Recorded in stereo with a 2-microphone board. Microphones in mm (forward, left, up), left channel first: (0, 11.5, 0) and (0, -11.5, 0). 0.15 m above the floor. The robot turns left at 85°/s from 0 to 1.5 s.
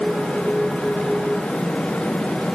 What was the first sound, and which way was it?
Only background noise.